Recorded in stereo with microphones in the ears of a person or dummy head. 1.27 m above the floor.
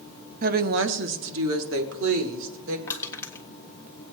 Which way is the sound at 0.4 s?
35° right (ahead or behind).